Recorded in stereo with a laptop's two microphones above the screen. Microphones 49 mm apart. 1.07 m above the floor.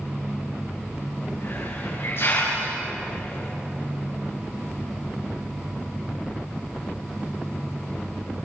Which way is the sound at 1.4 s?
55° left (ahead or behind).